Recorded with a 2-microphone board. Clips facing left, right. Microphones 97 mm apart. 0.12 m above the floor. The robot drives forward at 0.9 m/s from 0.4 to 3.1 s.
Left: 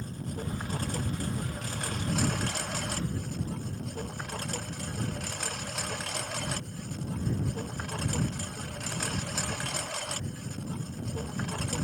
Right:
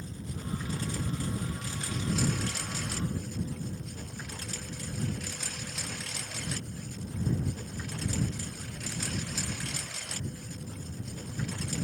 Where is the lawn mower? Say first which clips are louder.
Left 3 dB; 50° left (ahead or behind); by 11.8 s 55° left (ahead or behind).